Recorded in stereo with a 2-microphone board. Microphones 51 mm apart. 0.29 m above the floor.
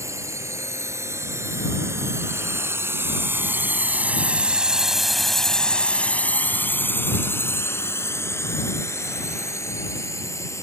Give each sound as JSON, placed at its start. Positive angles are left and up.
{"t": 0.0, "sound": "a drone", "side_deg": -70}